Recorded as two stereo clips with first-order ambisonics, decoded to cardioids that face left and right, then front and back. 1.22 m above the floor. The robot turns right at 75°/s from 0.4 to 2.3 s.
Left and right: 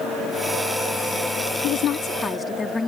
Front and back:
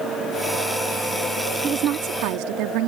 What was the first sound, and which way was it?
A woman speaking, 115° left.